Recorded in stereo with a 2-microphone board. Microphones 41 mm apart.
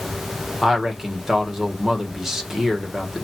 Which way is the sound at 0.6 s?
10° right (ahead or behind).